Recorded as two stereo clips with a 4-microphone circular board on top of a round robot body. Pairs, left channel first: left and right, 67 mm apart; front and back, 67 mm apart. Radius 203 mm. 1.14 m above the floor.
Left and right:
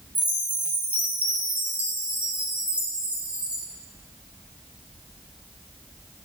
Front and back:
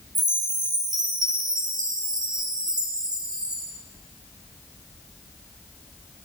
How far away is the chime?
About 1.5 m.